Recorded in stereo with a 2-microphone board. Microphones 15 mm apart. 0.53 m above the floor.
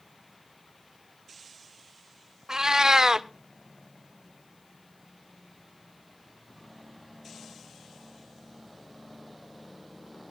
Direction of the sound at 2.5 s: 50° right (ahead or behind).